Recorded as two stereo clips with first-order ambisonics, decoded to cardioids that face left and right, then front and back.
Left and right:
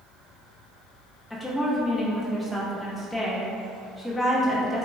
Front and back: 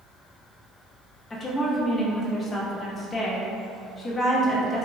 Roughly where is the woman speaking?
Ahead left.